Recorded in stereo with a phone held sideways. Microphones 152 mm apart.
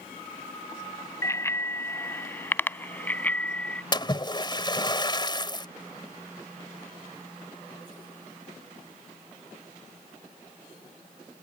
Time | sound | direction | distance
1.2 | a bicycle bell | 20° left (ahead or behind) | ?
3.9 | a splash | 30° left (ahead or behind) | ?